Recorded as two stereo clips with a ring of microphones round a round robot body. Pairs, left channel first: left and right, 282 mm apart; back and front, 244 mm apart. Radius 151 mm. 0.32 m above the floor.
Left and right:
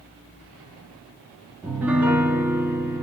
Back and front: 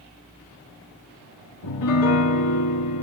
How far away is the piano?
About 1.0 m.